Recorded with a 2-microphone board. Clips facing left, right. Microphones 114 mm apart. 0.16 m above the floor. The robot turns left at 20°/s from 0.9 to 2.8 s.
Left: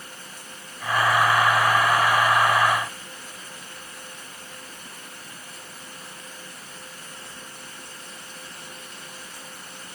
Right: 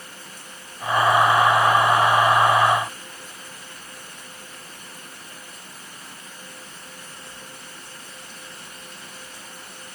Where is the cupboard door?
No cupboard door in this recording.